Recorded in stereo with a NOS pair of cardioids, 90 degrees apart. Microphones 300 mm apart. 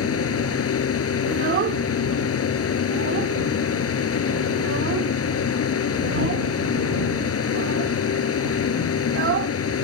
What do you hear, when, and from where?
0.0 s a fan: 50° left
1.3 s a child speaking: 45° right